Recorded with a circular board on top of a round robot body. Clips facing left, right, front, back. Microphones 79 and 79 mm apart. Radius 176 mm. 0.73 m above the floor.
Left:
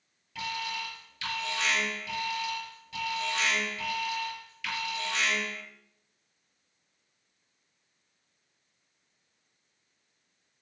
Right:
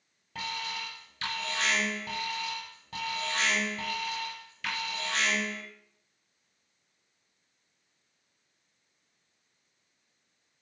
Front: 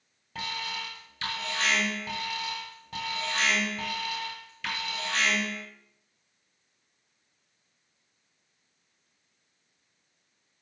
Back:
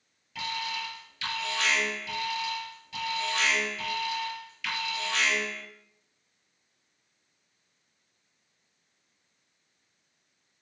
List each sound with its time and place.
0.3 s an alarm: 45° right, 7 m